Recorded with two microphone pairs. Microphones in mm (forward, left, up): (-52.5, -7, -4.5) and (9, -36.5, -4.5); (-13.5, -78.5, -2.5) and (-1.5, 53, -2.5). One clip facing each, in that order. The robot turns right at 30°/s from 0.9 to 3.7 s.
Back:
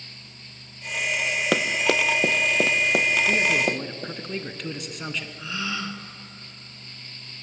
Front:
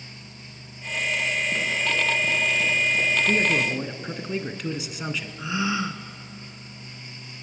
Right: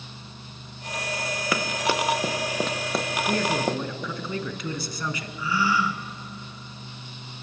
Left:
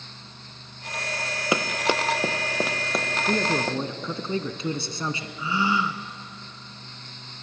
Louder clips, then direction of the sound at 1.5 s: Back 3 dB, left 2 dB; 150° left.